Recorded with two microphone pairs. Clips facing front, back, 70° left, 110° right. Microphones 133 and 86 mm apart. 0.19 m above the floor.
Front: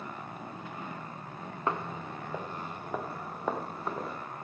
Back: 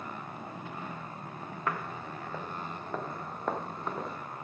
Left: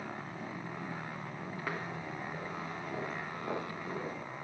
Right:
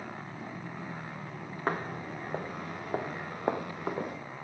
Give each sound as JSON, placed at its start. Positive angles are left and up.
{"t": 1.7, "sound": "footsteps", "azimuth_deg": -65, "distance_m": 1.3}